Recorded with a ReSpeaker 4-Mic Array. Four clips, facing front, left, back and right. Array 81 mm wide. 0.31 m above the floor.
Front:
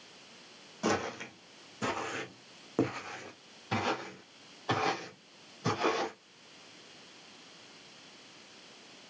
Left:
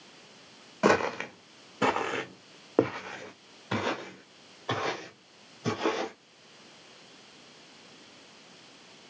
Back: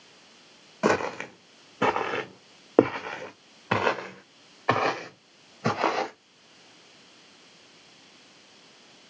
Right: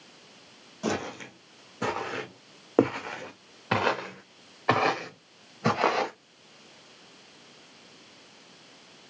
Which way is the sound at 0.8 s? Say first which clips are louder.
Left 7 dB, back 8 dB; 135° left.